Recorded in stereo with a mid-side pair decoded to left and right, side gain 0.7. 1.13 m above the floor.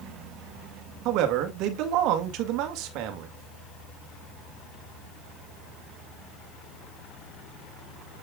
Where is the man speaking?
60° right, 2.0 m.